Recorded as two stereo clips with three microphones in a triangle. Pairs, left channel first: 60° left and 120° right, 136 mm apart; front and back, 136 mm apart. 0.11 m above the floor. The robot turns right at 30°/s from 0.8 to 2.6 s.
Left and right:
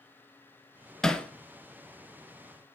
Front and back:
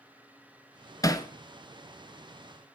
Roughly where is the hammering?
Ahead.